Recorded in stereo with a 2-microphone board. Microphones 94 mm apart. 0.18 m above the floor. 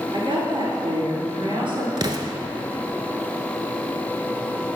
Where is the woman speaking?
60° right (ahead or behind), 3 m.